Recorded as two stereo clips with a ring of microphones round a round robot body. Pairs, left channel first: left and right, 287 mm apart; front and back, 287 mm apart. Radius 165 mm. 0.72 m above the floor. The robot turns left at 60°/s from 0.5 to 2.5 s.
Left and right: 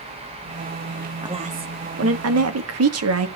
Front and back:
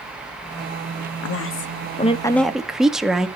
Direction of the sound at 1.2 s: 15° right.